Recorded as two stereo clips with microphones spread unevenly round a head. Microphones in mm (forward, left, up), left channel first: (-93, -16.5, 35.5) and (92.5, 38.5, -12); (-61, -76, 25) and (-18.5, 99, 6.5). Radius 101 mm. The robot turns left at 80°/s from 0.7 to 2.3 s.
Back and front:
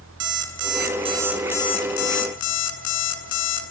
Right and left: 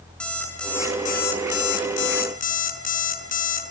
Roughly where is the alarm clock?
Ahead.